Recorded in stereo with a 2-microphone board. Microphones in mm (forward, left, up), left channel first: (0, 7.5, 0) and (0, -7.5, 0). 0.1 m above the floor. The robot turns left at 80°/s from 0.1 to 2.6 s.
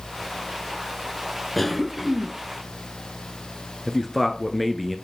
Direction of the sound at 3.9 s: 10° left (ahead or behind).